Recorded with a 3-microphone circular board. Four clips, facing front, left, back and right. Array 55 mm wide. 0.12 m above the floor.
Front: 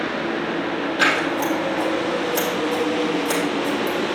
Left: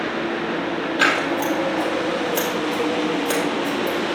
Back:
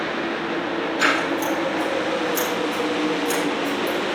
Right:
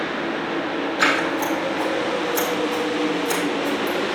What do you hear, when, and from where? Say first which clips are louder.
1.0 s scissors: left 1 dB, front 1 dB; 65° left, 4 m